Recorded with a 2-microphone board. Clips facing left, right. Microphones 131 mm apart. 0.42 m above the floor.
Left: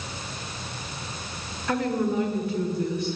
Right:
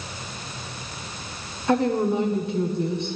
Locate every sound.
1.7 s a woman speaking: 25° right (ahead or behind), 1.3 m